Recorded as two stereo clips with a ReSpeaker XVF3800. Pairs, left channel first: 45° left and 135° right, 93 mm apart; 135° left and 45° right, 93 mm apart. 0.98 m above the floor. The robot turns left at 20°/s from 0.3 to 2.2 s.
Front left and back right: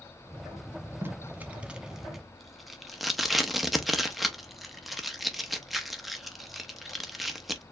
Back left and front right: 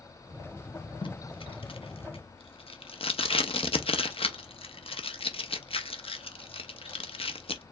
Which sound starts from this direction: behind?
Tape being pulled, at 1.0 s.